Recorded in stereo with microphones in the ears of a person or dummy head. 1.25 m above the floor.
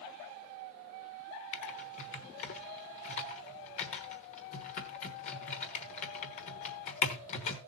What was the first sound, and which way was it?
Typing on a keyboard, 40° left (ahead or behind).